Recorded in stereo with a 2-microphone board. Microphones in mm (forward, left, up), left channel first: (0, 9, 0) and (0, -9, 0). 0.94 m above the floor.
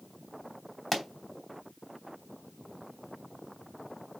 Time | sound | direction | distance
0.9 | a pop | 15° left (ahead or behind) | 3 m